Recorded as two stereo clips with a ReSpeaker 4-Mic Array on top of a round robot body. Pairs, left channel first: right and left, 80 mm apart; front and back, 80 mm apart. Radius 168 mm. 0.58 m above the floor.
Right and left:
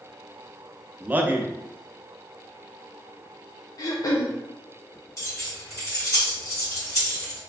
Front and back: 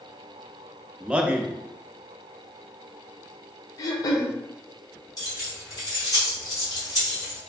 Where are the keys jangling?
40° right, 1.8 m.